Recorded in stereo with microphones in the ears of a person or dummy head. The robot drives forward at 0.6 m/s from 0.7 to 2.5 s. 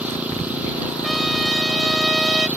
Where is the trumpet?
Centre (ahead or behind); by 2.5 s 5° right (ahead or behind).